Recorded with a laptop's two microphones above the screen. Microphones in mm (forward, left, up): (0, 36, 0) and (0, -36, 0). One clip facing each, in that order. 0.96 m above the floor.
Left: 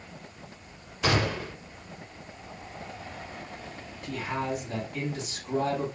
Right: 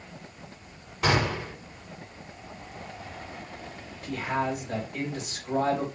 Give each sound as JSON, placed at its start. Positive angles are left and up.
{"t": 1.0, "sound": "a gunshot", "side_deg": -75, "distance_m": 3.5}
{"t": 4.0, "sound": "a man speaking", "side_deg": -70, "distance_m": 3.5}